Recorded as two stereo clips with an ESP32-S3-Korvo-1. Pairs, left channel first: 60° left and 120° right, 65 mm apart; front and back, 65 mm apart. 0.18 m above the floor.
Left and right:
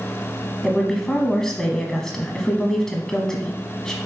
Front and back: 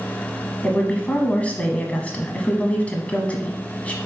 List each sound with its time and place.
0.6 s a woman speaking: 10° right, 1.0 m